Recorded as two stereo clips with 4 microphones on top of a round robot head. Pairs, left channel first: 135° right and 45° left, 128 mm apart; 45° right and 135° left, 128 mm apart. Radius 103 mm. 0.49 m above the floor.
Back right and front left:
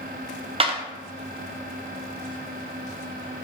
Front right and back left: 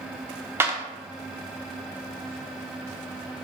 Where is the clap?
70° left, 1.1 m.